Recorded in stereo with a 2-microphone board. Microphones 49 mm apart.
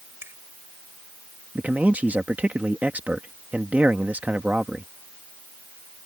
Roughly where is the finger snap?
Right.